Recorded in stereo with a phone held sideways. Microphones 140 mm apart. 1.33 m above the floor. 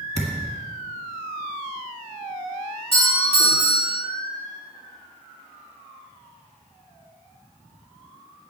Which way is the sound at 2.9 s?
40° left (ahead or behind).